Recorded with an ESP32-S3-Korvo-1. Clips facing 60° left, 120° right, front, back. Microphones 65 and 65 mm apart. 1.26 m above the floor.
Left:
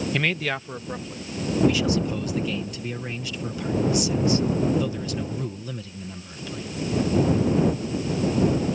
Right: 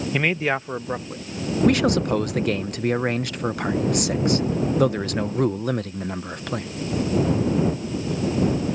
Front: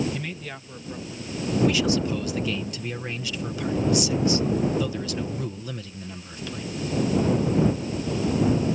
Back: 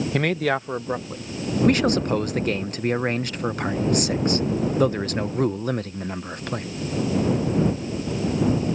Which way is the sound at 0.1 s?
165° left.